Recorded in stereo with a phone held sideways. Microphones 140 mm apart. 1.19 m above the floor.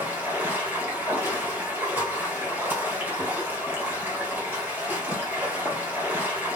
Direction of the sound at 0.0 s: 15° right (ahead or behind).